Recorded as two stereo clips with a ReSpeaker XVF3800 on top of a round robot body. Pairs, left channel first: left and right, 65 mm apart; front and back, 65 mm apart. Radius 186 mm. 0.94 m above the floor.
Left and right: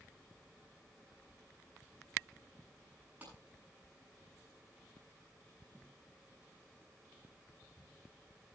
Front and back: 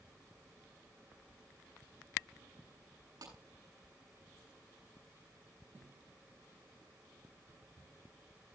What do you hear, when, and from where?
3.2 s a clap: 155° right, 9 m